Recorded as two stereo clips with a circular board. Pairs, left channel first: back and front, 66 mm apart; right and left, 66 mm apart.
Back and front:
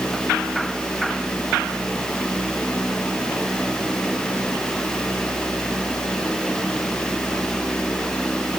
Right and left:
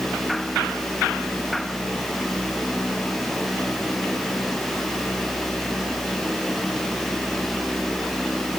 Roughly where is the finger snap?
No finger snap in this recording.